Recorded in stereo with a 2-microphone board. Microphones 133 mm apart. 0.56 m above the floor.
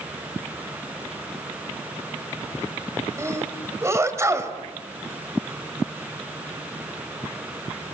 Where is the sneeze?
20° right (ahead or behind), 2.5 m.